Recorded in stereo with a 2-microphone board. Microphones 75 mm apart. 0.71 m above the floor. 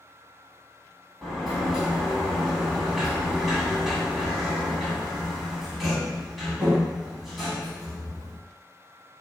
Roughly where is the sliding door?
Centre.